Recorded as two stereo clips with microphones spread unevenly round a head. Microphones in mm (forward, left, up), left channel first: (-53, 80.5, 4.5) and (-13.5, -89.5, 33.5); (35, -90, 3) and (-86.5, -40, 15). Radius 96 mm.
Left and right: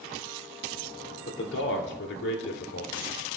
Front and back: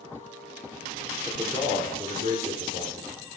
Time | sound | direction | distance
1.3 | a man speaking | 85° left | 2.5 m